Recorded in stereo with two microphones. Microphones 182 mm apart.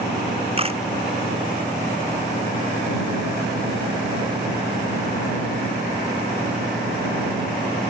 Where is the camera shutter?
30° right (ahead or behind).